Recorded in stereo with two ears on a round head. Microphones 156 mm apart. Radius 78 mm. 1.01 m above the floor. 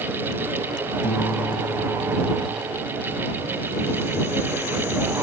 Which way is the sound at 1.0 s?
65° left (ahead or behind).